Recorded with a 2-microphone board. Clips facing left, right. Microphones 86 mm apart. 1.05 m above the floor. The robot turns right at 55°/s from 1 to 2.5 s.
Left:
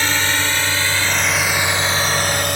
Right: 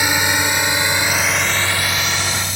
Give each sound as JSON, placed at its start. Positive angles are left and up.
{"t": 0.0, "sound": "a drone", "side_deg": -15}